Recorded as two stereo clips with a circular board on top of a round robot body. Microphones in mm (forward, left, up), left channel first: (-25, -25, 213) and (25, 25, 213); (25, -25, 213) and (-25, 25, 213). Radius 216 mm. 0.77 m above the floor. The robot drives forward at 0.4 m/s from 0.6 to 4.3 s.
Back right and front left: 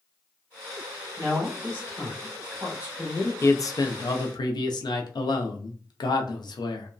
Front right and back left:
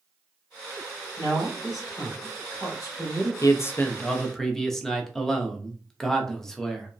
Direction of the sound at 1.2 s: 10° right.